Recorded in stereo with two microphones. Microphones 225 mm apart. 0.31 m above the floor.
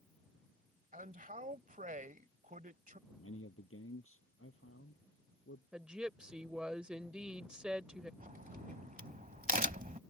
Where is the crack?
40° right (ahead or behind).